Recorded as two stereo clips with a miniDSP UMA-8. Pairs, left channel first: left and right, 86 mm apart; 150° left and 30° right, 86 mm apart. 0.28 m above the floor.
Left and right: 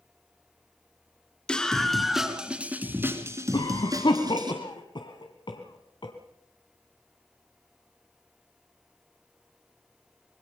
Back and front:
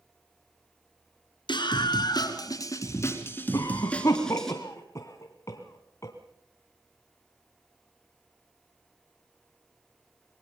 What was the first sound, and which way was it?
A scream, 170° left.